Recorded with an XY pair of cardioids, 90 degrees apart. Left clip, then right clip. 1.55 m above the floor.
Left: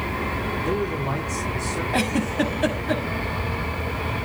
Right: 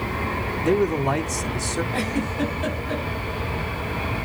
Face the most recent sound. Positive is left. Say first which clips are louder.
# left 3 dB
turn(degrees=50)